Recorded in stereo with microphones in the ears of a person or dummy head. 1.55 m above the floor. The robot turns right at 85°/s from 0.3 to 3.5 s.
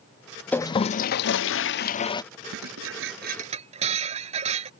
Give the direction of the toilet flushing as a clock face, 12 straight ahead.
12 o'clock.